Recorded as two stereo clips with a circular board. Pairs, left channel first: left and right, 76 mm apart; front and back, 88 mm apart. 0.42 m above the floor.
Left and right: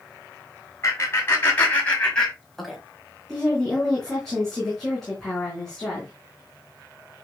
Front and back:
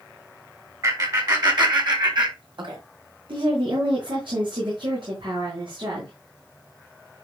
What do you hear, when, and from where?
0.8 s laughter: 140° left, 4 m; by 2.8 s straight behind, 3.5 m
3.3 s a woman speaking: 175° left, 4.5 m